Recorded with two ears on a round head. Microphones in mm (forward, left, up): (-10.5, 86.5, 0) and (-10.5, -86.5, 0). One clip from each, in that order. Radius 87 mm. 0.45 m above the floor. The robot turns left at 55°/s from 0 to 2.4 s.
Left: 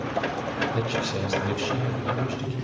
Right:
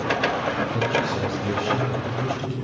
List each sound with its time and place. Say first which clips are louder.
0.7 s a man speaking: right 4 dB; 95° left, 1.8 m; by 2.5 s 5° left, 1.8 m